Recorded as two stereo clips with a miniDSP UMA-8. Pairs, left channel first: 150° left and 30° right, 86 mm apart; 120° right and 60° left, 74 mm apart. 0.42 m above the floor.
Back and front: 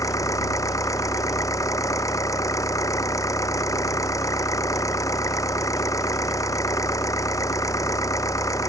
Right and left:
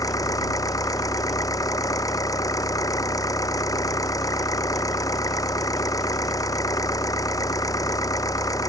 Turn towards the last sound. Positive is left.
turn(degrees=-160)